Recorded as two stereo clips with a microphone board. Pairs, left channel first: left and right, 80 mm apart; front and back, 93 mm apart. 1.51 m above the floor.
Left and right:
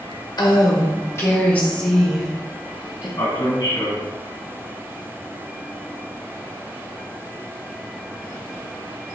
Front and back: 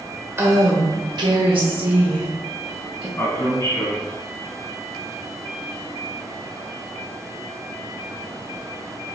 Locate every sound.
0.4 s a woman speaking: 120° left, 1.1 m; by 3.1 s 160° right, 1.4 m
3.2 s a man speaking: 60° left, 1.4 m